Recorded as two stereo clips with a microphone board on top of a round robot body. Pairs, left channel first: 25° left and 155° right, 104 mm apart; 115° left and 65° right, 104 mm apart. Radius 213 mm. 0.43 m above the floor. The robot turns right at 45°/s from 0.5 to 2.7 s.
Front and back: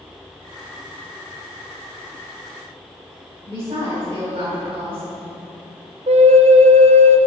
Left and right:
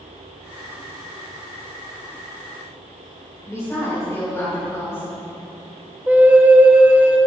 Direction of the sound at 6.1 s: 145° right.